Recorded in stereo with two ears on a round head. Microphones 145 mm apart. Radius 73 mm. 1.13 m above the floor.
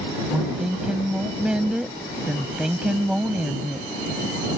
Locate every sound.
0.3 s a woman speaking: 5° right (ahead or behind)